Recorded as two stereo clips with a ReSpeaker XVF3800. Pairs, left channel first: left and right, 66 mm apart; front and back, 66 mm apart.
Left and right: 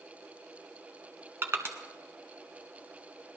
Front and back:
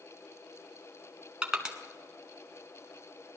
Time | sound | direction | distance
1.4 | crushing | 110° right | 1.2 m